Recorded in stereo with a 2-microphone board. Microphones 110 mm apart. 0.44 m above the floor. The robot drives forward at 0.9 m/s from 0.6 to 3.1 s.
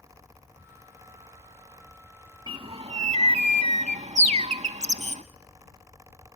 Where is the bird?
45° right (ahead or behind), 0.9 m; by 5.2 s 80° right, 0.6 m.